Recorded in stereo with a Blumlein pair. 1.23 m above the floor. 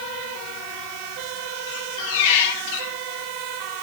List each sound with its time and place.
1.7 s a squeak: 50° left, 1.9 m